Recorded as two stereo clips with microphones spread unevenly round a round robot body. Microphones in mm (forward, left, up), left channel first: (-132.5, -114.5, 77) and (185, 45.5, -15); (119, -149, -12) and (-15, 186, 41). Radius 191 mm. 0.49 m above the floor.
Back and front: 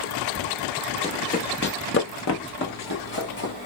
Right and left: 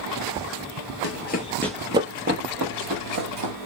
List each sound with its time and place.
1.0 s running footsteps: 110° right, 0.5 m; by 3.5 s 150° left, 1.3 m